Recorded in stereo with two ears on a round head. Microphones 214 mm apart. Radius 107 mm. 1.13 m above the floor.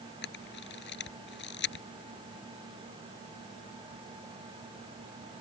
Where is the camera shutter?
50° left (ahead or behind).